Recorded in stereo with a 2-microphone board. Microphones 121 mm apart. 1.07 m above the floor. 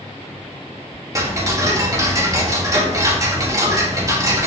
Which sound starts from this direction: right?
Ticking, at 1.1 s.